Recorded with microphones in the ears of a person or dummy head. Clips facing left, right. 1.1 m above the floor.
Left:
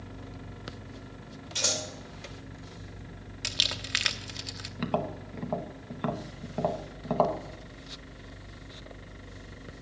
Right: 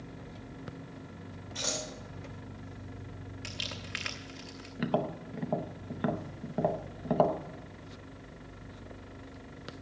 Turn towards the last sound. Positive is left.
turn(degrees=-5)  # may be behind; listen again after turning